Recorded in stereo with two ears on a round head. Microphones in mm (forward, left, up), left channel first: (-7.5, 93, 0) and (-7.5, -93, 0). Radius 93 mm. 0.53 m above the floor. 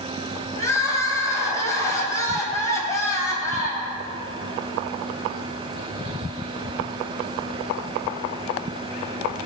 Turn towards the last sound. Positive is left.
turn(degrees=15)  # may be behind; listen again after turning